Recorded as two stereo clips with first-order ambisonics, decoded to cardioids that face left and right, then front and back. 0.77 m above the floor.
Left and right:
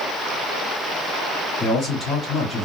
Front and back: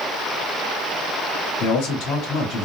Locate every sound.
1.6 s a man speaking: 15° left, 1.6 m